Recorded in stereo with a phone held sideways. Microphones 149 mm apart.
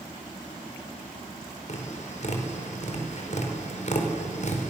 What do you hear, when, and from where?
1.7 s tapping: 55° left (ahead or behind), 4.5 m